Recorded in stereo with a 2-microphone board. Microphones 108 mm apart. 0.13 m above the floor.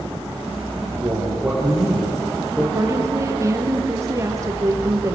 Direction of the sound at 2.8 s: 30° right (ahead or behind).